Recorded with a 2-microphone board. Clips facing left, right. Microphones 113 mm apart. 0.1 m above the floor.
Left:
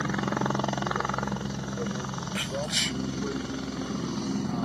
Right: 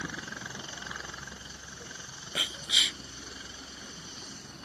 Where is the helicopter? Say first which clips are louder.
Left 13 dB; 70° left (ahead or behind).